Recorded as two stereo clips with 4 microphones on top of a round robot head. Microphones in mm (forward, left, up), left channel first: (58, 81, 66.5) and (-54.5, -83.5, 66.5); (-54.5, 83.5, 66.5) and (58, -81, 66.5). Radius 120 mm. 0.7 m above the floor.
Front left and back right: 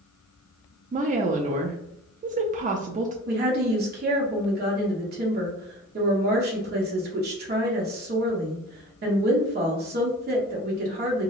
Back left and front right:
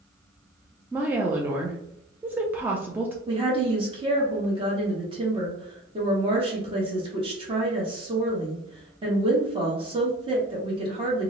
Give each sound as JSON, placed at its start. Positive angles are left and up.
{"t": 0.9, "sound": "a woman speaking", "azimuth_deg": -130, "distance_m": 0.5}
{"t": 3.3, "sound": "a woman speaking", "azimuth_deg": -115, "distance_m": 1.0}